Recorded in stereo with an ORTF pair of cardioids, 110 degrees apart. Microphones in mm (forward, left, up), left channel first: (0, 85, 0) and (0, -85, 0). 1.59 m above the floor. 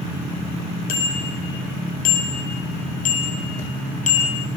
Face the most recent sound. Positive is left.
turn(degrees=45)